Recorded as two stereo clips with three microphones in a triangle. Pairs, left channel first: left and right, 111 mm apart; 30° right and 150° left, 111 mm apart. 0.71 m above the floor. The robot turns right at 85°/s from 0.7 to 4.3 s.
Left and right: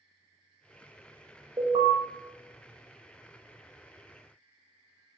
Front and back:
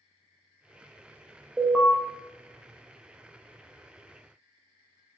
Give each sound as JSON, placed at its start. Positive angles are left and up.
{"t": 1.6, "sound": "an alarm", "azimuth_deg": -135, "distance_m": 0.5}